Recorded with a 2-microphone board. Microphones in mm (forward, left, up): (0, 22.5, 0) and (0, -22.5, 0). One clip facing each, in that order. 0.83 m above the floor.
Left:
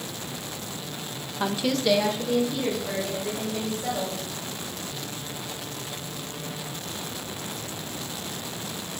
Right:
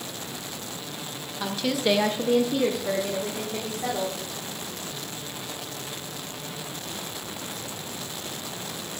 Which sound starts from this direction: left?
A woman speaking, at 1.4 s.